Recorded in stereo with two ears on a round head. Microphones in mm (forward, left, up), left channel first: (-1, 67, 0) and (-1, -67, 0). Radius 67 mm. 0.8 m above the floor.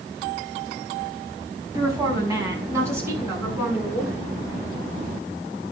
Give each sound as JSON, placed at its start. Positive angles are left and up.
{"t": 1.8, "sound": "a woman speaking", "side_deg": -25, "distance_m": 5.5}